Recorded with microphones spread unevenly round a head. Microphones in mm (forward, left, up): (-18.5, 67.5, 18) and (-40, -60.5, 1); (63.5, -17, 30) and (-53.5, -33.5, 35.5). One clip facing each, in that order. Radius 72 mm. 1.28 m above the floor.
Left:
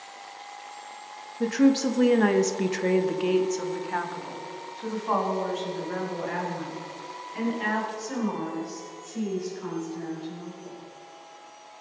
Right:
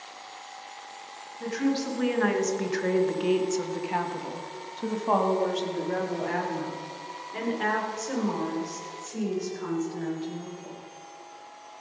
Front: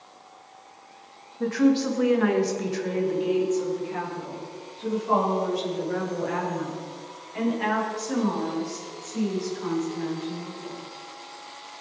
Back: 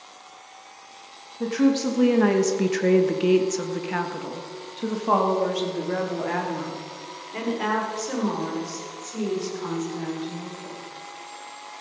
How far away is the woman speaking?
About 1.5 m.